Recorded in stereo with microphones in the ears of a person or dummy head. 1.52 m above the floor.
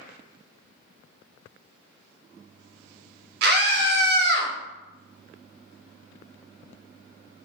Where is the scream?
60° right (ahead or behind), 1.0 m.